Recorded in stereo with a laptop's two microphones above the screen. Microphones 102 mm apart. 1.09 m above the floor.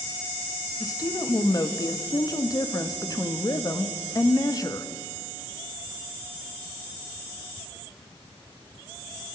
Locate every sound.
0.8 s a woman speaking: 35° left (ahead or behind), 1.8 m